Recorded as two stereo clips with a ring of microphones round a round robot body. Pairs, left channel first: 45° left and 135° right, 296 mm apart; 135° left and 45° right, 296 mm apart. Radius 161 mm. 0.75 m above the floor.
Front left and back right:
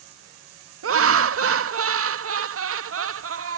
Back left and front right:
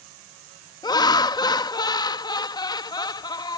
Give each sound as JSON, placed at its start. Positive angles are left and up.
{"t": 0.8, "sound": "laughter", "azimuth_deg": -155}